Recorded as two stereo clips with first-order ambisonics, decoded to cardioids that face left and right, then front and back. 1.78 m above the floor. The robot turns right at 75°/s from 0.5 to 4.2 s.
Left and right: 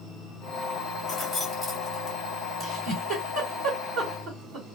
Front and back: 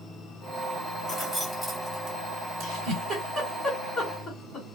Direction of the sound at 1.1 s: 55° left.